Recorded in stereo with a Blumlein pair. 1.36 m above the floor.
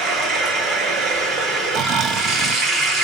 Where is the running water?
15° right, 1.4 m.